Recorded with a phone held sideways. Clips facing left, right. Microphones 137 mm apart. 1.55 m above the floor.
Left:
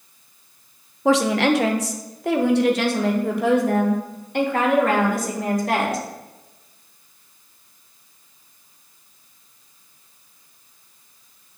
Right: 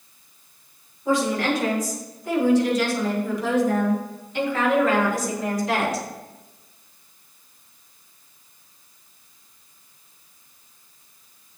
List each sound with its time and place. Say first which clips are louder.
1.1 s a woman speaking: left 4 dB; 85° left, 1.2 m; by 6.0 s 55° left (ahead or behind), 3.5 m